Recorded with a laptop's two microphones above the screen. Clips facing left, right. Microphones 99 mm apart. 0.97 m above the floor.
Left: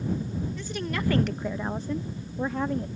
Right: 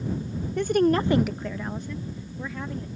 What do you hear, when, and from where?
0.6 s a woman speaking: 65° right (ahead or behind); by 2.9 s 50° left (ahead or behind)